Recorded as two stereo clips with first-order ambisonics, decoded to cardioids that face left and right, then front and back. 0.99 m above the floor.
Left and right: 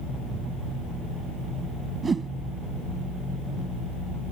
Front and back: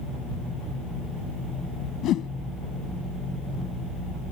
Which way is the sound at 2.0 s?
25° right.